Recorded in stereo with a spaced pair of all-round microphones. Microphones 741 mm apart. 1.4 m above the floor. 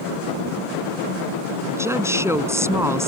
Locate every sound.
1.6 s a woman speaking: 5° right (ahead or behind)